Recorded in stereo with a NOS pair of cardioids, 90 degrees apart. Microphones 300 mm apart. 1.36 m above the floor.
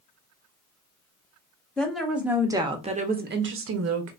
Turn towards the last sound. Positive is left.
turn(degrees=-65)